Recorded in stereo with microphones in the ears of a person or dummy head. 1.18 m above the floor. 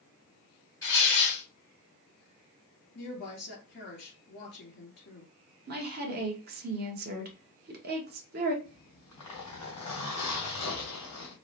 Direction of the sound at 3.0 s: 60° left (ahead or behind).